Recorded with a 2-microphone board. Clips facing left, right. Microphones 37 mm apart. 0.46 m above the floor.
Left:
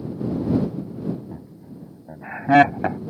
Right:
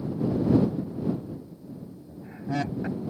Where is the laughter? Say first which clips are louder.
Left 1 dB; 60° left (ahead or behind); by 3.0 s 70° left (ahead or behind).